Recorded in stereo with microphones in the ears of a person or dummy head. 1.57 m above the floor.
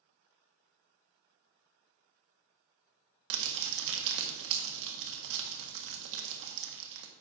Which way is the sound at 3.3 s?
70° right (ahead or behind).